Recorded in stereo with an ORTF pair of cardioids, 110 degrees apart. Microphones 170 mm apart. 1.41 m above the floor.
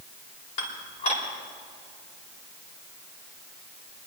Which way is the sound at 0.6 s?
40° left.